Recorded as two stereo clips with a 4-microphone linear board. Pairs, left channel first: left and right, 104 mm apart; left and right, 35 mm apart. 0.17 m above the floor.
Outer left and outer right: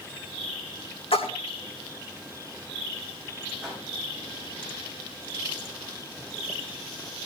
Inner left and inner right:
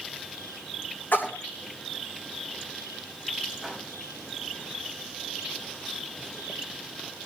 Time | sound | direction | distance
1.1 | a splash | 80° left | 3 m
3.6 | a whoosh | 5° right (ahead or behind) | 7 m